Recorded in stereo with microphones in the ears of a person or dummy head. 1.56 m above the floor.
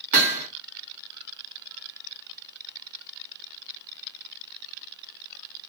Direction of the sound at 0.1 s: 45° right (ahead or behind).